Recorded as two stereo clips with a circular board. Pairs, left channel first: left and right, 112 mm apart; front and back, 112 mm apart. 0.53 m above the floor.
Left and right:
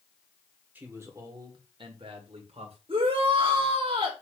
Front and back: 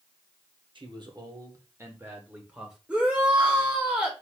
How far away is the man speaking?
About 1.3 m.